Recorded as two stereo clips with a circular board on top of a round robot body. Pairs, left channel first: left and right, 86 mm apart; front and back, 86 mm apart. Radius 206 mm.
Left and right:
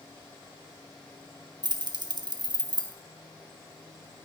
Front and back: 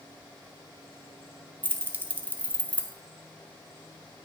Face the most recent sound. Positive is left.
turn(degrees=-115)